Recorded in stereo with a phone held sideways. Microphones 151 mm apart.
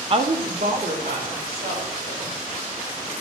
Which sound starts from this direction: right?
A woman speaking, at 0.1 s.